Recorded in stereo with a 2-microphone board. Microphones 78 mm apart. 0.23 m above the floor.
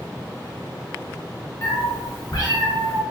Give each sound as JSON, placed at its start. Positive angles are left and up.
{"t": 1.6, "sound": "a cat meowing", "side_deg": 30, "distance_m": 0.6}